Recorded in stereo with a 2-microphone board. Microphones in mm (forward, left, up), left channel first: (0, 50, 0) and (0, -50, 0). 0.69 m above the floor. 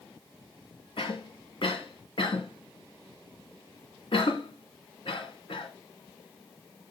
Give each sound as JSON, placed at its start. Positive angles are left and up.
{"t": 1.0, "sound": "a cough", "side_deg": 65, "distance_m": 2.5}